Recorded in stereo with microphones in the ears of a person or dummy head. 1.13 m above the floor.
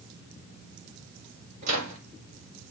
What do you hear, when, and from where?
1.6 s a microwave: 45° right (ahead or behind), 2.5 m